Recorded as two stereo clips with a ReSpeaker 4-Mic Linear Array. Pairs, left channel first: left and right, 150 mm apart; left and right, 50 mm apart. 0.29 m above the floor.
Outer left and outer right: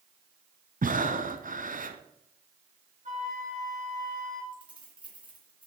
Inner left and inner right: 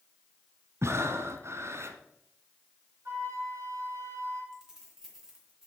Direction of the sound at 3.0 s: 50° right (ahead or behind).